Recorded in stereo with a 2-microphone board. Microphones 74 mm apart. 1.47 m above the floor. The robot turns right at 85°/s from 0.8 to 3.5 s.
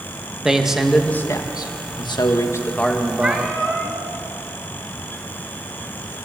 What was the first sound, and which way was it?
A man speaking, 10° right.